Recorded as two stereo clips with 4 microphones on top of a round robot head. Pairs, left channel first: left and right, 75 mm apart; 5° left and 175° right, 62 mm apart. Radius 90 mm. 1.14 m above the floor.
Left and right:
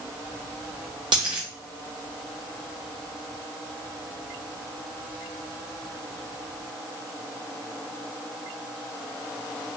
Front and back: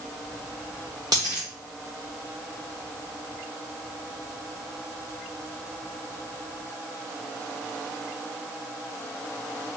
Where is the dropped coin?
130° right, 0.9 m.